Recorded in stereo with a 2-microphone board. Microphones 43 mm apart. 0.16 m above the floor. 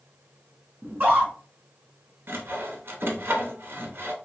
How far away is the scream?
About 1.9 m.